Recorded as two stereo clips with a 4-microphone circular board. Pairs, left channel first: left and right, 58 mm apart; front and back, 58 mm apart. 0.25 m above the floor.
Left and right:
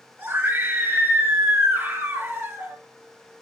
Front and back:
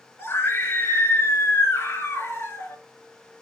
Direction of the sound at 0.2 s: 40° right.